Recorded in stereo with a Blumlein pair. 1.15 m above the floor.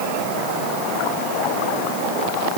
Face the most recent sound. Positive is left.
No sound to turn to.